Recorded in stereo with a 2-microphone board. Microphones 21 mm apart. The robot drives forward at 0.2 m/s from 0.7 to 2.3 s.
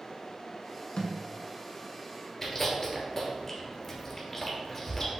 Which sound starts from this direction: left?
A thud, at 1.0 s.